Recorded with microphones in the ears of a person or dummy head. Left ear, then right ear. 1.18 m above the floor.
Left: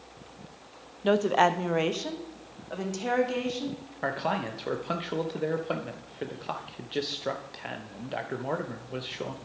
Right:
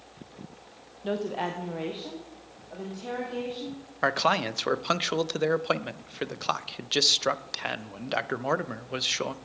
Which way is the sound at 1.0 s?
30° left (ahead or behind).